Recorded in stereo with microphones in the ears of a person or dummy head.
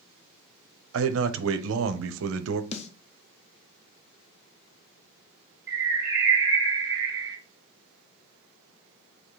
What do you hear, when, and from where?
0.9 s a man speaking: 75° right (ahead or behind), 0.7 m
2.7 s a snare drum: 35° left (ahead or behind), 0.7 m
5.7 s a bird: 20° right (ahead or behind), 2.5 m